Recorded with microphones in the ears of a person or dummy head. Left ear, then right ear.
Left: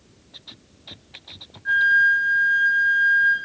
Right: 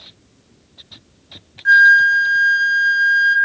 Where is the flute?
60° right (ahead or behind), 0.7 m.